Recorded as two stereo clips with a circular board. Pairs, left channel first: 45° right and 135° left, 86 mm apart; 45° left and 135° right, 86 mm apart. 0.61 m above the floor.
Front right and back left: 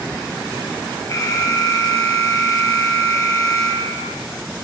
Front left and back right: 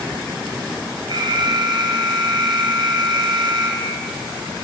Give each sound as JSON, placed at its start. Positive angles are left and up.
{"t": 1.1, "sound": "an alarm", "azimuth_deg": -95, "distance_m": 4.0}